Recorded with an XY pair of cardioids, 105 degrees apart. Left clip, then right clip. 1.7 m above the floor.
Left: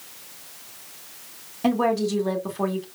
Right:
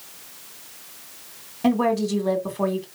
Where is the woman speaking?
Straight ahead, 2.5 m.